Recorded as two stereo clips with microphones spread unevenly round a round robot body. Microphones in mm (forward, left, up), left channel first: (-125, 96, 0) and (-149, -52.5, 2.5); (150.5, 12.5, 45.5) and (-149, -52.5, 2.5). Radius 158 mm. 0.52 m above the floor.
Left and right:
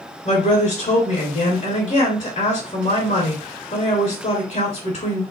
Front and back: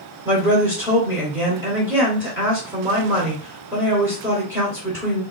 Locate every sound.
0.2 s a woman speaking: 115° left, 2.5 m